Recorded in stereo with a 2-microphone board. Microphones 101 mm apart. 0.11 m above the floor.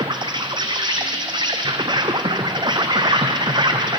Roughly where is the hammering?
I don't hear hammering.